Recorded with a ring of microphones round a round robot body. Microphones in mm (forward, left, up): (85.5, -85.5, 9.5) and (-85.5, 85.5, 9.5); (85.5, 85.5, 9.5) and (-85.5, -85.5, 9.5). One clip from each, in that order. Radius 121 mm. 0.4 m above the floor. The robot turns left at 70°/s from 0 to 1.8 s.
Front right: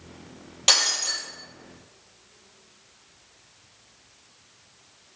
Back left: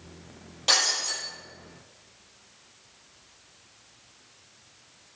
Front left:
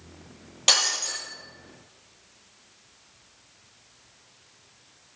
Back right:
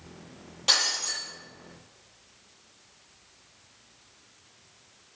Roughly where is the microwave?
No microwave in this recording.